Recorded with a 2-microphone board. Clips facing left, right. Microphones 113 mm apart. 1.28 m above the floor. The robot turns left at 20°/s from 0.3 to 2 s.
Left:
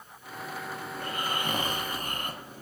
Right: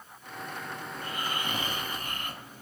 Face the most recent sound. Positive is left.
turn(degrees=40)  # may be behind; listen again after turning